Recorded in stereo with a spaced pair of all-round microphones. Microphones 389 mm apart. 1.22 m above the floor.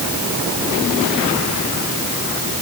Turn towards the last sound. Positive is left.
No sound to turn to.